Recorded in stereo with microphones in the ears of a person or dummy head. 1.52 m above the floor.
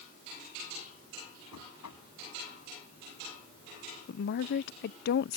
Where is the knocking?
85° left.